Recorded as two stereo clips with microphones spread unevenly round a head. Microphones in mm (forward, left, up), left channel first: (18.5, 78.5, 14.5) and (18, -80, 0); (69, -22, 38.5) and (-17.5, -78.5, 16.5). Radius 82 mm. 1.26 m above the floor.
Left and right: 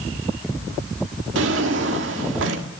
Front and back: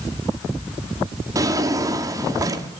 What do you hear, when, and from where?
1.4 s a drawer: 85° right, 1.7 m